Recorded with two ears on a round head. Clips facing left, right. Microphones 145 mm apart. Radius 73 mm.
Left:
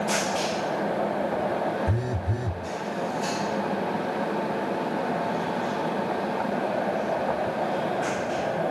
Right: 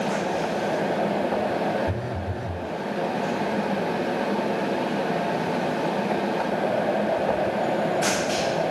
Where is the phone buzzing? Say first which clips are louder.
Even; 30° left (ahead or behind), 0.5 m.